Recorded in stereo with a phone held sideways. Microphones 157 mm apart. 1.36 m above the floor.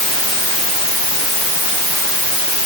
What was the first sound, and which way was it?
Only background noise.